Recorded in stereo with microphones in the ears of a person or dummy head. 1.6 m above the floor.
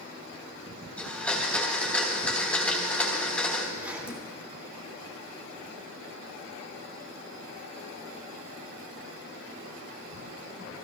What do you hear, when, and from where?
1.0 s a blender: centre (ahead or behind), 3.5 m
3.8 s a zipper: 5° right (ahead or behind), 3.5 m